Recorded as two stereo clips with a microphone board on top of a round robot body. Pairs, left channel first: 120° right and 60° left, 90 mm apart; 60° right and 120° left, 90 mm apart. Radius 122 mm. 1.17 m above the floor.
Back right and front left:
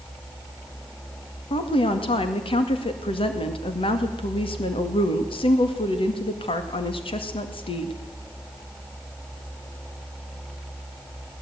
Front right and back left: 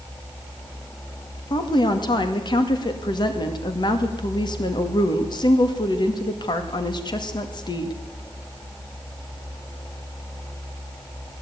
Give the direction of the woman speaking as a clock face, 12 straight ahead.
3 o'clock.